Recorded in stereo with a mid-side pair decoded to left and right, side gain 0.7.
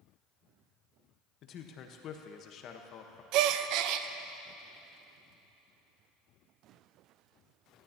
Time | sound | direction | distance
1.4 | a man speaking | 50° left | 1.2 m
3.3 | a gasp | 60° right | 0.5 m